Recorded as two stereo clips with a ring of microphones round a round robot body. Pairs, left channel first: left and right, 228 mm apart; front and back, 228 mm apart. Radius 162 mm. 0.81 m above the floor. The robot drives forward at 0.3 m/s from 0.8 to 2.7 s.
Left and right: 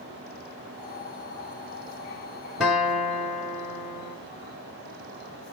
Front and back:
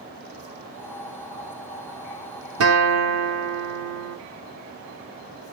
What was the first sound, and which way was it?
A guitar, straight behind.